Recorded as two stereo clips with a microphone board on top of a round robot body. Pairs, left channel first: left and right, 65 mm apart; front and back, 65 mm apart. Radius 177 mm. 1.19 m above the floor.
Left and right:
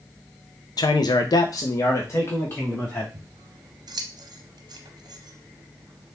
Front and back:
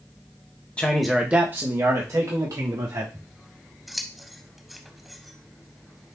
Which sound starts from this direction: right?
Scissors, at 3.1 s.